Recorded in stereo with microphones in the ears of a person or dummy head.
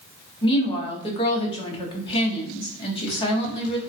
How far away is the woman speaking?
About 0.6 m.